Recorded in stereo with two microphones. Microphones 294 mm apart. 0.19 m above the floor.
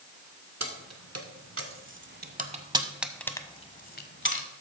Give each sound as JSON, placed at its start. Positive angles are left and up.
{"t": 0.6, "sound": "keys jangling", "side_deg": -60, "distance_m": 1.6}